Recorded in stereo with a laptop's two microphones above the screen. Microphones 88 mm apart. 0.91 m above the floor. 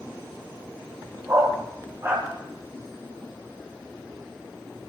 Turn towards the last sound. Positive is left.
turn(degrees=-30)  # may be behind; listen again after turning